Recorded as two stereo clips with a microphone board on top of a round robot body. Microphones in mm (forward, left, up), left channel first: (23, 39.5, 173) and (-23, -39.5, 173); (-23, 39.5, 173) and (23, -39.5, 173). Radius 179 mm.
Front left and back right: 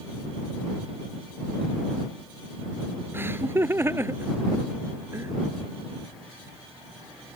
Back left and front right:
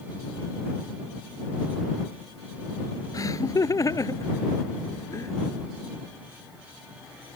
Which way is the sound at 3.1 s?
175° left.